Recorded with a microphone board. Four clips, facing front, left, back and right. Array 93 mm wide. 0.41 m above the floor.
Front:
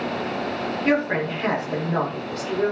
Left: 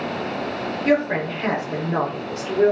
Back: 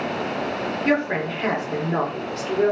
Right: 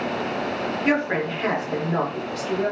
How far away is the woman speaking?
About 1.0 m.